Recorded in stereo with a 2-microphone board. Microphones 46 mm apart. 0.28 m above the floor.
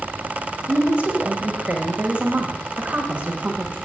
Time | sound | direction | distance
0.7 | a woman speaking | 25° right (ahead or behind) | 1.5 m